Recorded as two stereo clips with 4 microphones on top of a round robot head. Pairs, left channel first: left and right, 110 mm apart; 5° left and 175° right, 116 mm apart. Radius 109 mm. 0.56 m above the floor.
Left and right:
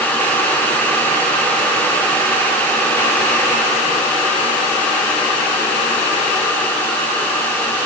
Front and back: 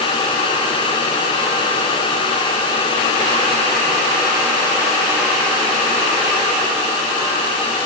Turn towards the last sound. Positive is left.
No sound to turn to.